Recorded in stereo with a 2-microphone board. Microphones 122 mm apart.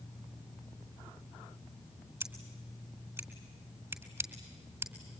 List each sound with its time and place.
2.2 s scissors: 20° right (ahead or behind), 3.5 m